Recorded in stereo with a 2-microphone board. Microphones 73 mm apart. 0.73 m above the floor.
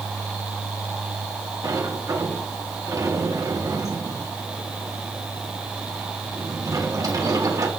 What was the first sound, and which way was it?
A sliding door, 50° right (ahead or behind).